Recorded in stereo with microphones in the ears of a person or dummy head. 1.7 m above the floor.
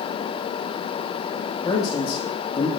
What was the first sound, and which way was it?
A man speaking, 25° left (ahead or behind).